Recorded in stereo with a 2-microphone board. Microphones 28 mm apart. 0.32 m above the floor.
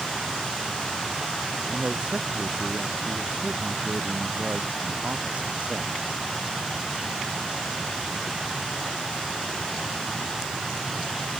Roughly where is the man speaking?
Right.